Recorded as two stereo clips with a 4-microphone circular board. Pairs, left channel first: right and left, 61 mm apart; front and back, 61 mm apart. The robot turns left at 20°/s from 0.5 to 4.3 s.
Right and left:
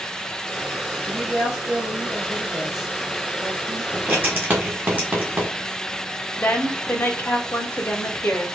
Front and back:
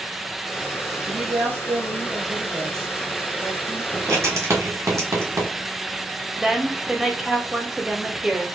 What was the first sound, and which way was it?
A woman speaking, 160° right.